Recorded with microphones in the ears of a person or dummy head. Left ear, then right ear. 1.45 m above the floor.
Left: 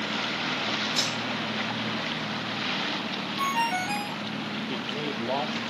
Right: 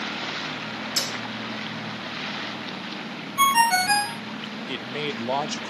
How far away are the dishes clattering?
About 3 m.